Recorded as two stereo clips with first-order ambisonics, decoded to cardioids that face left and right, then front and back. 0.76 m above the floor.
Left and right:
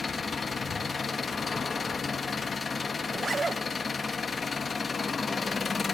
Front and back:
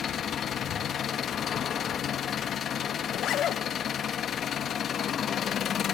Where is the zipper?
25° right, 0.6 m.